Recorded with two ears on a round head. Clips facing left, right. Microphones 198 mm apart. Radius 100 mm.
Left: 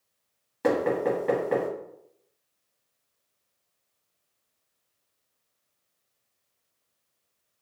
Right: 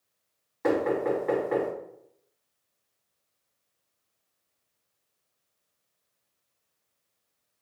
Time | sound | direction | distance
0.6 | knocking | 45° left (ahead or behind) | 1.9 m